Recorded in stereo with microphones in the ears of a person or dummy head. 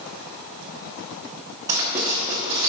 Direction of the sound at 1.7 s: 15° right (ahead or behind).